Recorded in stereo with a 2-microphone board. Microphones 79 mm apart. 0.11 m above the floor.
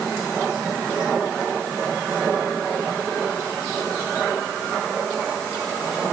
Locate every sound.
Only background noise.